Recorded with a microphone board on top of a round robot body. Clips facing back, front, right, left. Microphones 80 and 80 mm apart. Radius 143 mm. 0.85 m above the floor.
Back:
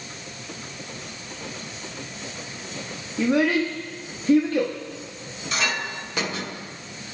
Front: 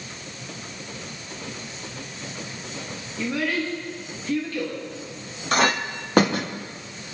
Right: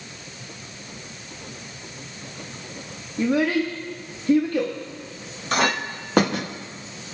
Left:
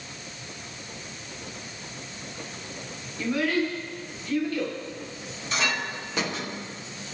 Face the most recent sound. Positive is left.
turn(degrees=-45)